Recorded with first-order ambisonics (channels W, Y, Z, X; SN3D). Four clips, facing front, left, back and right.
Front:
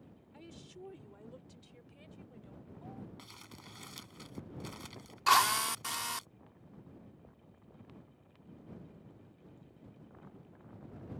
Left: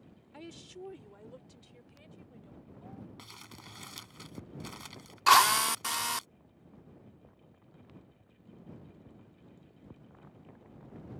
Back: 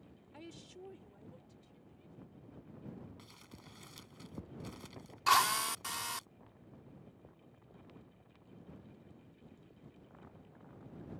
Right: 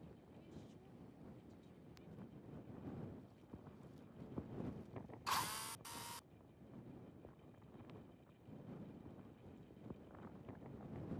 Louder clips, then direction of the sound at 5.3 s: Left 20 dB, front 2 dB; 85° left.